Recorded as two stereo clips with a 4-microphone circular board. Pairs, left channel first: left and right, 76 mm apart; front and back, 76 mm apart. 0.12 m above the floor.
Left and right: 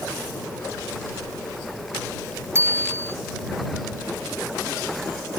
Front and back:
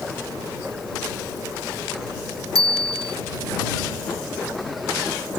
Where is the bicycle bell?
145° right.